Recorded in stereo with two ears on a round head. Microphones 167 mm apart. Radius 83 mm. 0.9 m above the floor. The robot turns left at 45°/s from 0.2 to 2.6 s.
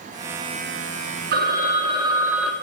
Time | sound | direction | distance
1.3 | a phone ringing | 120° right | 1.3 m